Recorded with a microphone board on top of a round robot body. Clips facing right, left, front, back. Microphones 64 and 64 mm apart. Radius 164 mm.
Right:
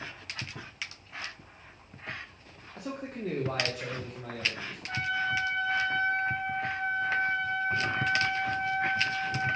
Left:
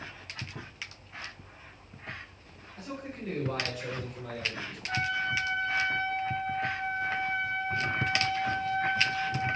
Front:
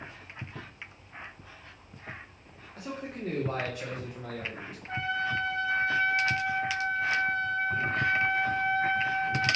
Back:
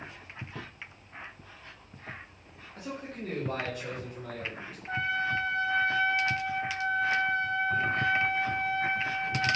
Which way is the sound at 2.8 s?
90° right.